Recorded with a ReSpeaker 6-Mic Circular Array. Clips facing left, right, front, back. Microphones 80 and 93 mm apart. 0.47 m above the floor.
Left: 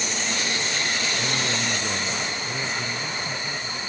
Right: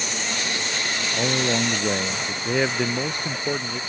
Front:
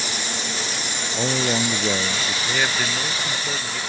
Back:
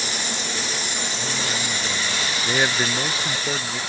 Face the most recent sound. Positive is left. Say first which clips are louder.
# right 7 dB, back 3 dB
turn(degrees=-110)